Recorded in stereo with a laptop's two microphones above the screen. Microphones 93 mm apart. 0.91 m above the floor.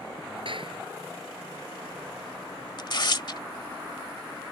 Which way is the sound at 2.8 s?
50° left (ahead or behind).